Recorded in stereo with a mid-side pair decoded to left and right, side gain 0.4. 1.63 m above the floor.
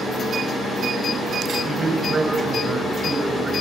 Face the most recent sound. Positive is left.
turn(degrees=-25)